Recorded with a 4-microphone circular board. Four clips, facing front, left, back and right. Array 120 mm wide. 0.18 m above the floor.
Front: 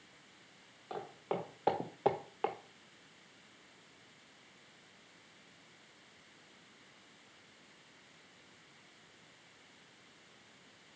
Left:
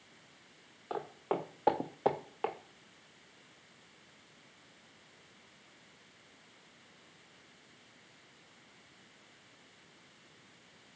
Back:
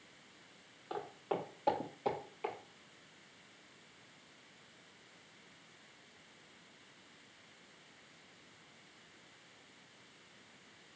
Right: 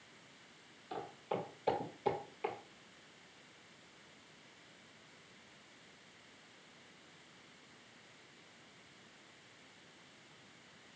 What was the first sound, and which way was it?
Footsteps, 85° left.